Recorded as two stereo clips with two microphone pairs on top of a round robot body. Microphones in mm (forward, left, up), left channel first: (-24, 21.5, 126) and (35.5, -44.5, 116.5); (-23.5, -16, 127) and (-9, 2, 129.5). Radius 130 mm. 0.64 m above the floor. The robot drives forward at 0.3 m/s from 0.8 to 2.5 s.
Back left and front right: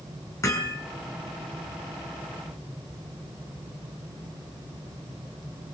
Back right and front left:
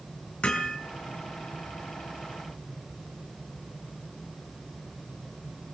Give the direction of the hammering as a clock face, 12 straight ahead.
6 o'clock.